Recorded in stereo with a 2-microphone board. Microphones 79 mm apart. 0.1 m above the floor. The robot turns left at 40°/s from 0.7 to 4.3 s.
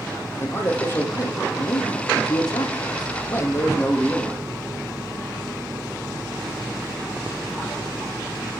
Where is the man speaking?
150° left, 4 m; by 4.5 s 5° left, 4 m.